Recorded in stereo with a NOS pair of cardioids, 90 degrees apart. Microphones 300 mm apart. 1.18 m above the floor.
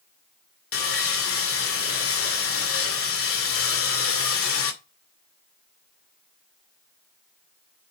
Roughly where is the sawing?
Ahead left.